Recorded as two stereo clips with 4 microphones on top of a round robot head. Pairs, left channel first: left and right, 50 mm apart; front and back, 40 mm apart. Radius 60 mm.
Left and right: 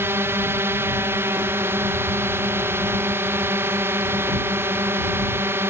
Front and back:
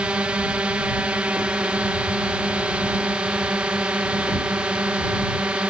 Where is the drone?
120° right.